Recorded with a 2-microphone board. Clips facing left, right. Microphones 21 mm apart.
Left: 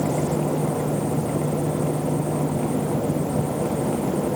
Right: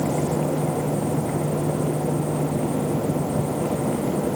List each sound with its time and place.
Only background noise.